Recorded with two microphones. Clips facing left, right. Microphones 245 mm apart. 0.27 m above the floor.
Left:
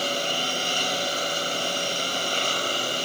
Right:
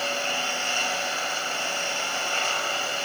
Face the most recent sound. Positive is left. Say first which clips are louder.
# left 2 dB
turn(degrees=40)  # may be behind; listen again after turning